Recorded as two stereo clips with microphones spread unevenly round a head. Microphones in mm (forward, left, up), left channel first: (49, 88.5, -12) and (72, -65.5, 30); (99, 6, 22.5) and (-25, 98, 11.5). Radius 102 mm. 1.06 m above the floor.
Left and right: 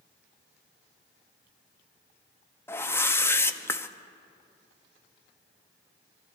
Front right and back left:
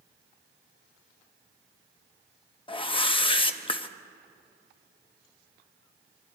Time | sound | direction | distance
2.7 | a whoosh | 20° left | 1.0 m